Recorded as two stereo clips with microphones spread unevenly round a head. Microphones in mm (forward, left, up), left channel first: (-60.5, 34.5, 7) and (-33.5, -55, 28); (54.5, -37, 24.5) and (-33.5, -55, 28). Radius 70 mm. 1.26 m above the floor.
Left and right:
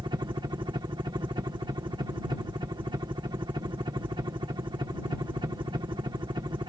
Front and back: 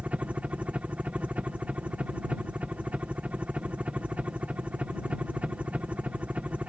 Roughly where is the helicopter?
Right.